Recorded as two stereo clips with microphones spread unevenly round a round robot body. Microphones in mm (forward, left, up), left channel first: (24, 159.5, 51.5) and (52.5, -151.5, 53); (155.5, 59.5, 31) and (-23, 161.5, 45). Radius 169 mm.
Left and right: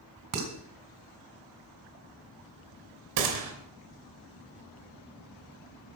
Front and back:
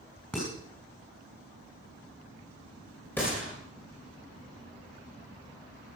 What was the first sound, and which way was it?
Dishes clattering, 115° right.